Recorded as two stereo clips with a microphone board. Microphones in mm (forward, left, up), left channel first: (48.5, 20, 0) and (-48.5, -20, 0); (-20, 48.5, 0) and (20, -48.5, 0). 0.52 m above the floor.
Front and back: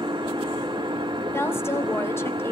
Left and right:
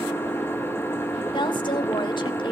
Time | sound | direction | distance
0.0 | an engine running | 175° left | 1.3 m
1.3 | a woman speaking | 85° left | 1.5 m